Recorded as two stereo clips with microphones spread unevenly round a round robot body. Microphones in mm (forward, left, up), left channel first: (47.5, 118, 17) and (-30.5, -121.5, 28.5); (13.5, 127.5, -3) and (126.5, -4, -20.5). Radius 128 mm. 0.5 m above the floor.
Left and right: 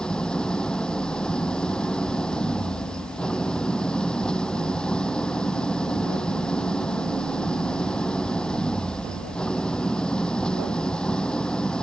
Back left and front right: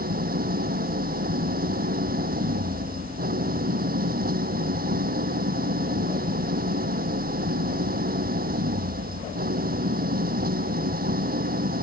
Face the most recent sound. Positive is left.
turn(degrees=-15)